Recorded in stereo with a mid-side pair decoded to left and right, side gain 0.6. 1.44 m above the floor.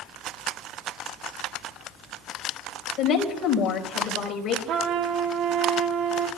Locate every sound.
3.0 s a woman speaking: 50° left, 4.5 m
4.7 s a trumpet: 55° right, 1.3 m